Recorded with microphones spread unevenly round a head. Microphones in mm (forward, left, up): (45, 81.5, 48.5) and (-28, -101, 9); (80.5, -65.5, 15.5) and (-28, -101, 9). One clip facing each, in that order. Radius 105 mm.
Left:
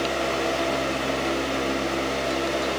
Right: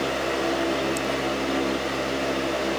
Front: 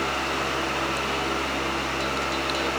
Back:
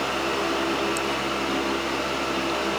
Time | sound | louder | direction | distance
0.0 | a fan | even, back 2 dB | 165° left | 3.5 m